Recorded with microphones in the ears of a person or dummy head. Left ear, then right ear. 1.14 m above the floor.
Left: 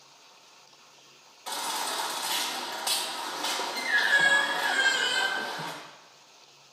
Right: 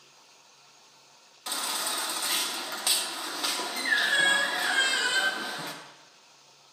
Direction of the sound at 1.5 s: 25° right (ahead or behind).